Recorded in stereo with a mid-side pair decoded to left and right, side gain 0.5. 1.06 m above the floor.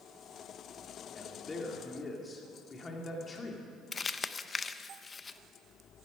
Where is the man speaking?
30° left, 2.5 m.